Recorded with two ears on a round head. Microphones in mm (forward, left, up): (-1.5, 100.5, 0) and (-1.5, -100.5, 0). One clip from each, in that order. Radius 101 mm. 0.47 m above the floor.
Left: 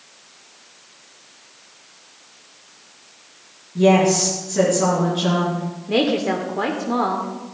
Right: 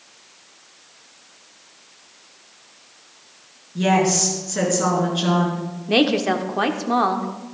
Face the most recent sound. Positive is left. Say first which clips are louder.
# right 1 dB
turn(degrees=-35)  # may be behind; listen again after turning